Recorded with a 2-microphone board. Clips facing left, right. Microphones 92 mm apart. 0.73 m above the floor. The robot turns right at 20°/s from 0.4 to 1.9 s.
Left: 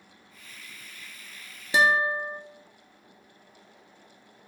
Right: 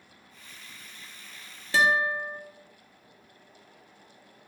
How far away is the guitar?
About 1.1 m.